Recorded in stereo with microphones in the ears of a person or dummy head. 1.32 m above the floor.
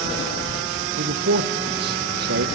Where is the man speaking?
65° right (ahead or behind), 0.7 m.